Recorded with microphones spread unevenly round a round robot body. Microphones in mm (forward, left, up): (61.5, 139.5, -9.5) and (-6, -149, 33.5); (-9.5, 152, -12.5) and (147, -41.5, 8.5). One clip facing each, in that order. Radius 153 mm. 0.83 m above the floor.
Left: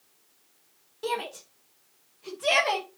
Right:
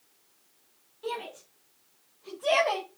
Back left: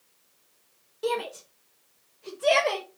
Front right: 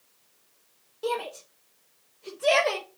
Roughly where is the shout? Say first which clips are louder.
Left 4 dB, back left 2 dB; left.